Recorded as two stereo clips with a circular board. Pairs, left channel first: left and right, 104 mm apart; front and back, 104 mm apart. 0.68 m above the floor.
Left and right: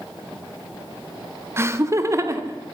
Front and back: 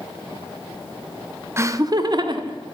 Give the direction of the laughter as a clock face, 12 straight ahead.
5 o'clock.